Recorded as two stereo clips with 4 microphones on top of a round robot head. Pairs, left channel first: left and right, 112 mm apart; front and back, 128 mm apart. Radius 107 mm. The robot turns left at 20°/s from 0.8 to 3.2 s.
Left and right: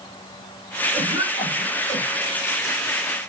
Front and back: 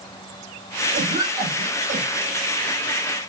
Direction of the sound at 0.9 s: Straight behind.